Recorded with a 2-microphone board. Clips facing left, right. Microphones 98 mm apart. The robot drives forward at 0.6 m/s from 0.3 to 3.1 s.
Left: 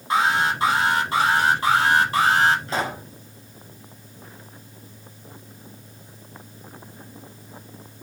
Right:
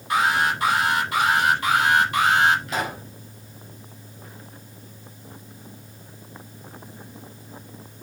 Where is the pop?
35° left (ahead or behind), 4 m.